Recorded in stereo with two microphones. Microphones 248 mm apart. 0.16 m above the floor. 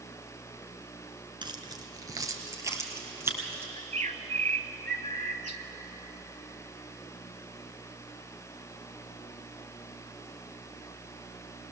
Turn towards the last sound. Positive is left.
turn(degrees=-30)  # may be behind; listen again after turning